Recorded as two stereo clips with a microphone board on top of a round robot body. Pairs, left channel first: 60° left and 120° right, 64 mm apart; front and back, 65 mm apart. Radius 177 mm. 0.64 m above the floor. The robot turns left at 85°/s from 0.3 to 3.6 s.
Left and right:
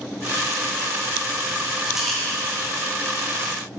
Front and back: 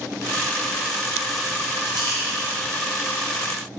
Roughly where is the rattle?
Behind.